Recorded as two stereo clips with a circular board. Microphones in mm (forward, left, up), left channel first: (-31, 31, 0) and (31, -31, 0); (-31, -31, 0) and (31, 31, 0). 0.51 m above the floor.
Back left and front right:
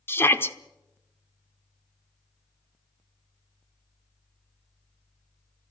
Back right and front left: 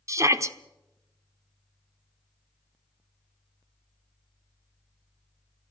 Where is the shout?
80° left, 1.1 m.